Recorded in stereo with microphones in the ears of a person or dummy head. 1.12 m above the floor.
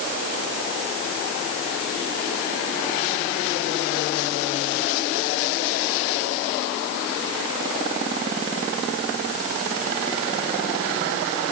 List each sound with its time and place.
Only background noise.